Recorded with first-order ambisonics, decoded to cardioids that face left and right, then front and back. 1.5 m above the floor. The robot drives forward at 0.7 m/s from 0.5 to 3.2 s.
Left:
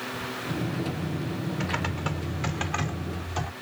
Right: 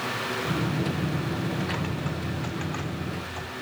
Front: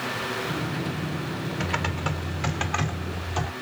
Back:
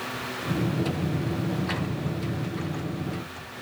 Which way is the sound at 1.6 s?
25° left.